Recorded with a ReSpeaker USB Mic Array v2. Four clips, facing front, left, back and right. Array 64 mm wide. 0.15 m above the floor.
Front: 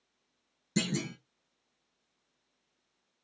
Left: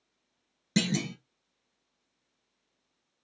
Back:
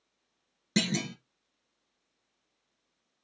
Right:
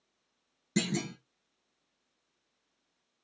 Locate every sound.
0.8 s a clunk: 155° left, 1.1 m